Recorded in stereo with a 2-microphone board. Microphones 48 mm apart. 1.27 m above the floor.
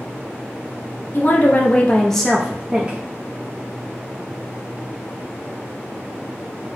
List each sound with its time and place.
1.1 s a woman speaking: 50° left (ahead or behind), 0.7 m; by 3.0 s 25° right (ahead or behind), 0.7 m